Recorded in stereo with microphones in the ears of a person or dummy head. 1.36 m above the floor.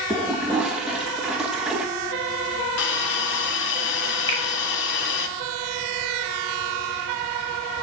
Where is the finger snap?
15° left (ahead or behind), 1.9 m.